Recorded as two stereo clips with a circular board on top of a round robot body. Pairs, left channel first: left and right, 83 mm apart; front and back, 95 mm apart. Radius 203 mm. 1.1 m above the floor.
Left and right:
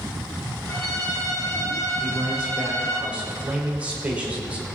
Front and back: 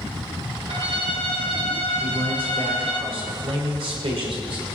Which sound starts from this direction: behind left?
A violin, at 0.7 s.